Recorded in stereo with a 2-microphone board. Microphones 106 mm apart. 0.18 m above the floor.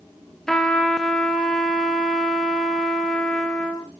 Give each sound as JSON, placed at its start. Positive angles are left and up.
{"t": 0.5, "sound": "a trumpet", "side_deg": 5, "distance_m": 2.5}